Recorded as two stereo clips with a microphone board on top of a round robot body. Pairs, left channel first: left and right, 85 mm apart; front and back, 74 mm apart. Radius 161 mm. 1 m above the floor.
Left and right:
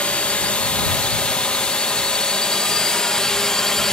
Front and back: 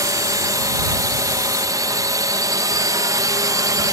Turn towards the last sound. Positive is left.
turn(degrees=170)